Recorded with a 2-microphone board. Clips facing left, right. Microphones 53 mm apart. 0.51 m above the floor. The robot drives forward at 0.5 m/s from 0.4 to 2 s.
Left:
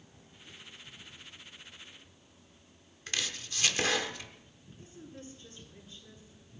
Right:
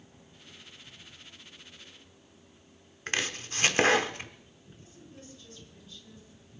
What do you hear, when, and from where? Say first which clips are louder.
3.1 s chopping: right 5 dB; 40° right (ahead or behind), 0.8 m
4.8 s a woman speaking: left 4 dB; 25° left (ahead or behind), 7.5 m